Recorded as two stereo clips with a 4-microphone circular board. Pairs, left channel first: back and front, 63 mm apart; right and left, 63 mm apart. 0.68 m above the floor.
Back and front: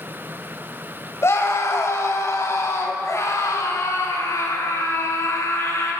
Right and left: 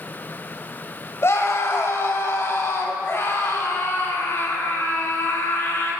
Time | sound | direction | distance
1.2 | a scream | 135° right | 4 m